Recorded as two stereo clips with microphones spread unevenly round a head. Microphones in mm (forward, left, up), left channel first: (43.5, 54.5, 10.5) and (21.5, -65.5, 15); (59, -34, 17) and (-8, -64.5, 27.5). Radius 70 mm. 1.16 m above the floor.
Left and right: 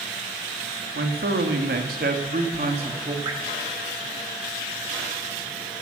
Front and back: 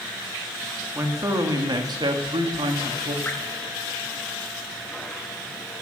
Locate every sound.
0.9 s a man speaking: 100° right, 2.5 m; by 3.1 s 160° right, 2.5 m
3.2 s dripping: 45° right, 3.5 m